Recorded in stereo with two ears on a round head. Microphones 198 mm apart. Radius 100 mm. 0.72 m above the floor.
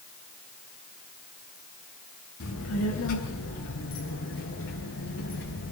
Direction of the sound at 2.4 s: 75° left (ahead or behind).